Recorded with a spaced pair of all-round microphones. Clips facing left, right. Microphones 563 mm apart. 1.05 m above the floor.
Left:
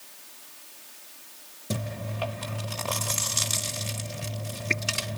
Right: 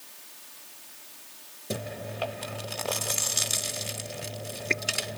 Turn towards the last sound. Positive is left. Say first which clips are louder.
# left 1 dB
turn(degrees=30)  # may be behind; listen again after turning